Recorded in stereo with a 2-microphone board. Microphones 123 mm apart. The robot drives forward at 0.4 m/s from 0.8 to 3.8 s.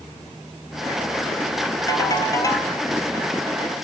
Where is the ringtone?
30° left (ahead or behind), 1.5 m; by 2.7 s 25° left (ahead or behind), 1.8 m.